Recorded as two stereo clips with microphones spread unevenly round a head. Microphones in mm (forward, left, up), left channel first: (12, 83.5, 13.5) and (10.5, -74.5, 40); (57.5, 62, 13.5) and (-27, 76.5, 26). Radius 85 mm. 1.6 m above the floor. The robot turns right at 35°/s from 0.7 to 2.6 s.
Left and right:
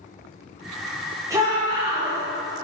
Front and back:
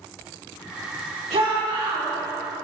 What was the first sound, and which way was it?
A shout, 165° right.